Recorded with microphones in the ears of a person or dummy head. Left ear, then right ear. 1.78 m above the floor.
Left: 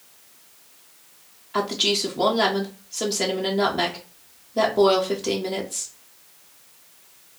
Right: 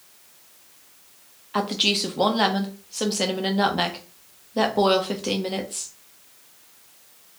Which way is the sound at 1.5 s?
10° right (ahead or behind).